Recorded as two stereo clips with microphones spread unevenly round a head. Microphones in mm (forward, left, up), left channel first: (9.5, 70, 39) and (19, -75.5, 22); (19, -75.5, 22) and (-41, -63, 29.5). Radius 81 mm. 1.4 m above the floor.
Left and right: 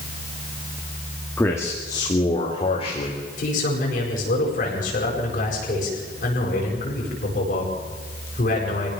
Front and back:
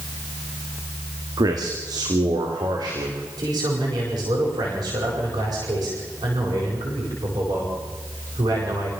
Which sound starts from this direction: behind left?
A man speaking, at 3.4 s.